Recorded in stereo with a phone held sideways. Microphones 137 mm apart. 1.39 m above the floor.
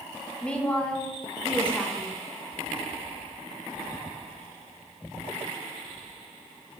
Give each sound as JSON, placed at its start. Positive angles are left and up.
{"t": 0.4, "sound": "a woman speaking", "side_deg": 10, "distance_m": 1.3}